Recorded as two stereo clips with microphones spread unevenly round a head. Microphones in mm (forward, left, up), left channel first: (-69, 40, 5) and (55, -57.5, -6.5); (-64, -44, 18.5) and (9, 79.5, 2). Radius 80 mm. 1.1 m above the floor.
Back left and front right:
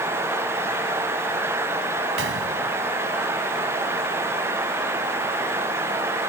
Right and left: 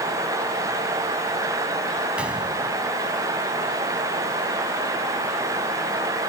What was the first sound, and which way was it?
A gunshot, 25° right.